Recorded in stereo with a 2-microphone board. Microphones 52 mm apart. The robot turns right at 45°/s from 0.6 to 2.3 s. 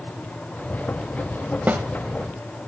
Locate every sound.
1.7 s a snare drum: 40° right (ahead or behind), 0.9 m; by 1.8 s 35° right (ahead or behind), 0.9 m